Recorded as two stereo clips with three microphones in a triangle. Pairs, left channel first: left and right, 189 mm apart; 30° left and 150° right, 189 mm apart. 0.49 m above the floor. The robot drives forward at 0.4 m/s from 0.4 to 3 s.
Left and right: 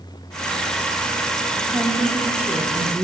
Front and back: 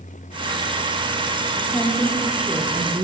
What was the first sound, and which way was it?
A woman speaking, 20° right.